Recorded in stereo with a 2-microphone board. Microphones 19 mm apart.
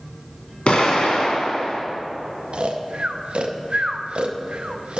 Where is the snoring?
60° right (ahead or behind), 0.6 m.